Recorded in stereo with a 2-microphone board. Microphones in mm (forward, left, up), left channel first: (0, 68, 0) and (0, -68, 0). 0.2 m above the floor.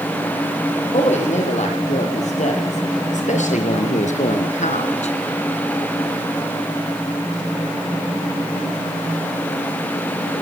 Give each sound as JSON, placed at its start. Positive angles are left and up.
{"t": 0.9, "sound": "a woman speaking", "side_deg": 55, "distance_m": 8.0}